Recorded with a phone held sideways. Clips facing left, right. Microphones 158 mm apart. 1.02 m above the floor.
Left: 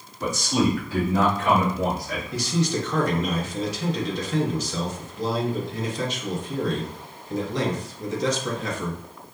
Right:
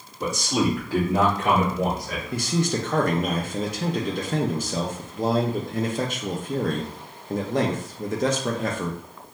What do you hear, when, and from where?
0.2 s a man speaking: 30° right (ahead or behind), 1.6 m; by 2.2 s 45° right (ahead or behind), 1.3 m
2.3 s a man speaking: 55° right (ahead or behind), 0.6 m